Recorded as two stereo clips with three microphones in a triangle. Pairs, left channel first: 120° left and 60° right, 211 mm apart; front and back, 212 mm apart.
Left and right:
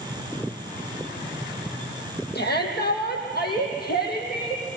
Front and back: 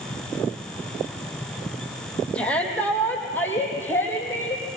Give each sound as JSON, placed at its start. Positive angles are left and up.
{"t": 2.4, "sound": "a shout", "azimuth_deg": 85, "distance_m": 4.0}